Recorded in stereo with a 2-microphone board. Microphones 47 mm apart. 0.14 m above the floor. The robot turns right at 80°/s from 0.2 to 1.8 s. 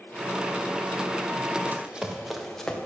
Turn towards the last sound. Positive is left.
turn(degrees=15)  # may be behind; listen again after turning